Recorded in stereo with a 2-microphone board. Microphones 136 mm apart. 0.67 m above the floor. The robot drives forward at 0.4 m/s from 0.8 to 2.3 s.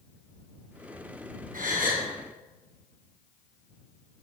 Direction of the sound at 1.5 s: 75° right (ahead or behind).